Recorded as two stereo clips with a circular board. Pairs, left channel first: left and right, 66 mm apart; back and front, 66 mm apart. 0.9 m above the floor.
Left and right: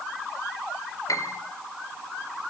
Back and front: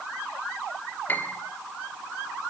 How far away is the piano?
About 2.5 m.